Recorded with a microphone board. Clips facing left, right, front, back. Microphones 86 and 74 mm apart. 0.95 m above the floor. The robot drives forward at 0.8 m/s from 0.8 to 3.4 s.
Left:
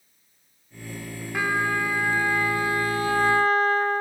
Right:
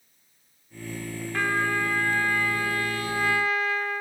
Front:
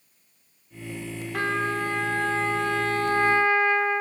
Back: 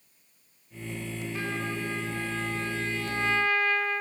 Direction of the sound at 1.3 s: 10° left.